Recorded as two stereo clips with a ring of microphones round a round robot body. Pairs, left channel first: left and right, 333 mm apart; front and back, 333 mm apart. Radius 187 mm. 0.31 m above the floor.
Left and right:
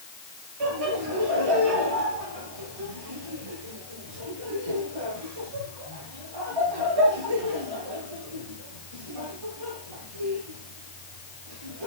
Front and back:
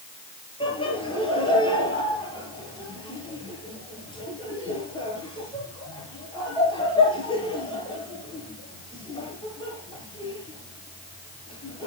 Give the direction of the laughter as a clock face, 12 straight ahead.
3 o'clock.